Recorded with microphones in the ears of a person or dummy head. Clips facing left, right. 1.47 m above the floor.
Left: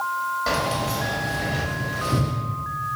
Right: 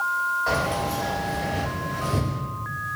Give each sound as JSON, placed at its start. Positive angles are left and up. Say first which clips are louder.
{"t": 0.5, "sound": "keys jangling", "louder": "even", "side_deg": 60, "distance_m": 1.9}